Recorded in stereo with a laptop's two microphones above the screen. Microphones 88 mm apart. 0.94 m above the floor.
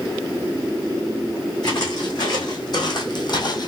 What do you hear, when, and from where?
1.6 s footsteps: 45° left (ahead or behind), 2.5 m